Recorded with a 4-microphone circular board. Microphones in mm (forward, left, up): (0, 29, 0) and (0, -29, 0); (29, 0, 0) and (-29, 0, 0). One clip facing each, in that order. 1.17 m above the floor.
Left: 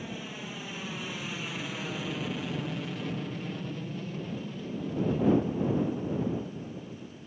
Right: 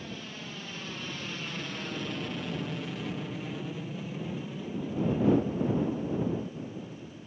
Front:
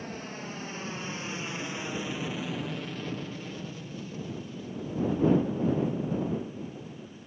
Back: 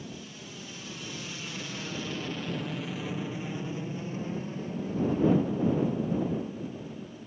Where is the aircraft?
15° left; by 7.3 s 165° right.